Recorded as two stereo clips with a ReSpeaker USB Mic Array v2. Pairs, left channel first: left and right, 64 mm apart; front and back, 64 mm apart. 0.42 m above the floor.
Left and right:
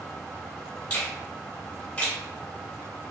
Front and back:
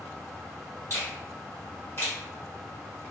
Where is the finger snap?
25° left, 1.6 m.